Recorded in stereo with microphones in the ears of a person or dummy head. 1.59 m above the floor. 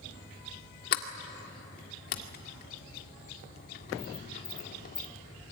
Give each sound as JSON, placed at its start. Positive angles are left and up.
{"t": 0.9, "sound": "a sliding door", "side_deg": 50, "distance_m": 2.0}